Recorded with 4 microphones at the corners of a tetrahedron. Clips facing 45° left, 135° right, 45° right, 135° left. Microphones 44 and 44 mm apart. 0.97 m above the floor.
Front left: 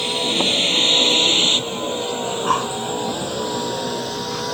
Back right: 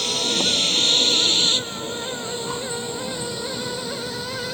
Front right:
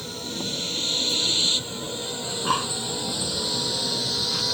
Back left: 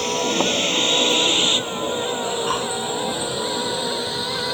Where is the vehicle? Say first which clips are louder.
Front left 3 dB, back left 12 dB; 110° left; by 4.5 s 70° left.